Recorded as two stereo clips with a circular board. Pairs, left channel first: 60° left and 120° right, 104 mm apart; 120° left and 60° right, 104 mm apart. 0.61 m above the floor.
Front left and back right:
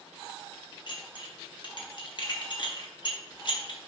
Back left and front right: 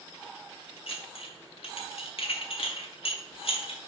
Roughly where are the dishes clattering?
Left.